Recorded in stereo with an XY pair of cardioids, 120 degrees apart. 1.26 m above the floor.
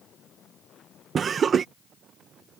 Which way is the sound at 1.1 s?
40° right.